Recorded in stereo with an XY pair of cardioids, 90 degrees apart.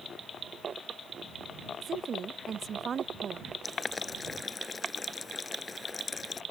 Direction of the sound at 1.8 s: 50° right.